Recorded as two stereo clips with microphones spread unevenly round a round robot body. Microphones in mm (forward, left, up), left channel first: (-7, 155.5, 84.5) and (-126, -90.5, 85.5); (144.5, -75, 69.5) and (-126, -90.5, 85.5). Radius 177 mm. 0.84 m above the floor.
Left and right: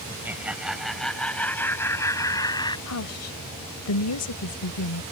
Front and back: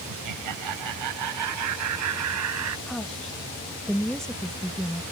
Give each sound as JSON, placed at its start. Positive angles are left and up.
{"t": 0.1, "sound": "laughter", "azimuth_deg": 165}
{"t": 2.9, "sound": "a woman speaking", "azimuth_deg": 90}